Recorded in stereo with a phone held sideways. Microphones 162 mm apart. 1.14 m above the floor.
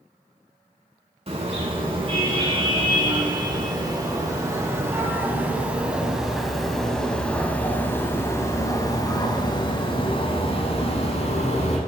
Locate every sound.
1.3 s a car horn: 40° right (ahead or behind), 4.5 m; by 11.8 s 50° left (ahead or behind), 4 m